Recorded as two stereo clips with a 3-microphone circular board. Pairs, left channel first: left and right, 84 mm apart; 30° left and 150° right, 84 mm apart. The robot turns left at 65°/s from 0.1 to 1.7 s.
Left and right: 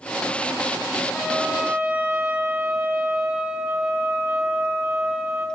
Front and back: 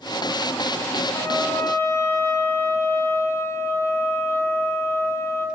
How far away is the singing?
No singing in this recording.